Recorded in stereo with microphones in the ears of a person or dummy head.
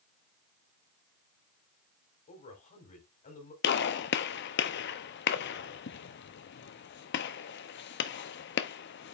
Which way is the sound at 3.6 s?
55° left (ahead or behind).